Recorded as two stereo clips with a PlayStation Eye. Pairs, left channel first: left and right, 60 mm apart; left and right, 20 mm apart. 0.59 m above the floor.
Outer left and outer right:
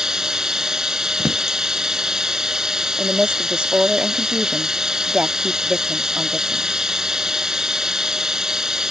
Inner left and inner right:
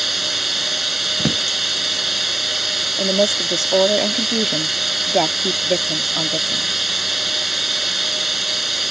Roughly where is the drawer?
Right.